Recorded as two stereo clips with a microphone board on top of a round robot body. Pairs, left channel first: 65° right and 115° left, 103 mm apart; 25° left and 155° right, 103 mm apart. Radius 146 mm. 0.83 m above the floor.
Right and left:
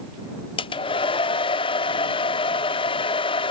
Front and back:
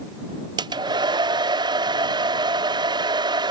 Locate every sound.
0.6 s a hair dryer: 110° right